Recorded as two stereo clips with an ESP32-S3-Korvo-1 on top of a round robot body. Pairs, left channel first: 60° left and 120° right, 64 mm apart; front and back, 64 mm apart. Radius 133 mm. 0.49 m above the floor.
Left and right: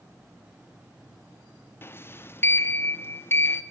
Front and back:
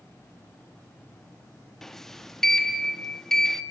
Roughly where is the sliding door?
Left.